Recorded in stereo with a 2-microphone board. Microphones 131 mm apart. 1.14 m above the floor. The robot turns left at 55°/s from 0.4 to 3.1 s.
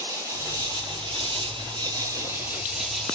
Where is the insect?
40° right, 0.7 m; by 3.1 s 170° left, 0.7 m.